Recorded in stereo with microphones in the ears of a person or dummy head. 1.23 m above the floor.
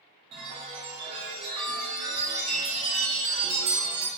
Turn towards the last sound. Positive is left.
turn(degrees=-30)  # may be behind; listen again after turning